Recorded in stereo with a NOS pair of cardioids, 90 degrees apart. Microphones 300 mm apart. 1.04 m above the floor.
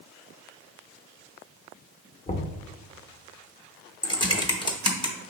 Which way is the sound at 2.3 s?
25° left.